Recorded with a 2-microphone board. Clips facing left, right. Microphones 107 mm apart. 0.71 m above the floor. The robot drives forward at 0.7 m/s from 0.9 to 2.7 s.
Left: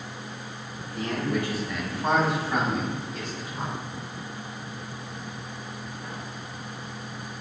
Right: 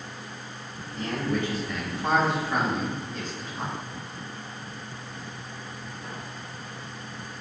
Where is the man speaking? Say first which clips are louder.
Even; 10° left (ahead or behind), 2.5 m; by 3.8 s 5° left (ahead or behind), 3.5 m.